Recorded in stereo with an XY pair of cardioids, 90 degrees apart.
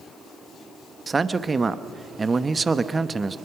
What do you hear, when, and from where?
1.1 s a man speaking: 35° right, 1.1 m